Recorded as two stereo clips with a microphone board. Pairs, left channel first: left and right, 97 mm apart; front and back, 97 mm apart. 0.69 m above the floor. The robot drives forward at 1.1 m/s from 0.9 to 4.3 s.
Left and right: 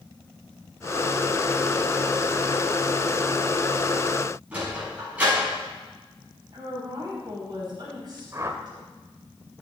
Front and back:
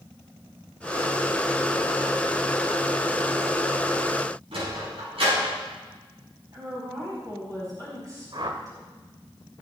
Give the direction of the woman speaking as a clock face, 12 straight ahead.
4 o'clock.